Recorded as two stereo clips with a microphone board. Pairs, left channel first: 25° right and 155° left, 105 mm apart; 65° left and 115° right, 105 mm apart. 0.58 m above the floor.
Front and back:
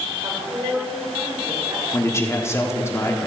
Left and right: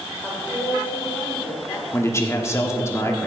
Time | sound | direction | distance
0.2 | a woman speaking | 140° left | 2.5 m
1.9 | a man speaking | 25° left | 1.3 m